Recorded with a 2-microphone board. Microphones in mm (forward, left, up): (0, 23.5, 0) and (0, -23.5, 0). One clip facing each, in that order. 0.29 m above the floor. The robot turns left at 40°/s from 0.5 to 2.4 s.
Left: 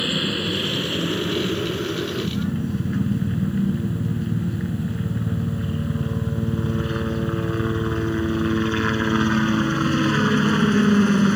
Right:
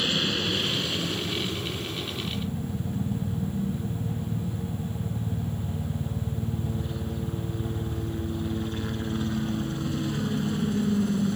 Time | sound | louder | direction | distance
0.0 | a helicopter | left 3 dB | 165° left | ?